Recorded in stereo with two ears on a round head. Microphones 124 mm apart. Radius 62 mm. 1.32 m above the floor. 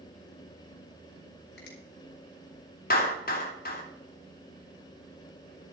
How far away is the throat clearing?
I don't hear throat clearing.